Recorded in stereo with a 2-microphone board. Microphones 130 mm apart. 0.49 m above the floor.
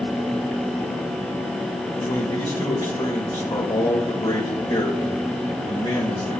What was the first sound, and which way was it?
A man speaking, 45° left (ahead or behind).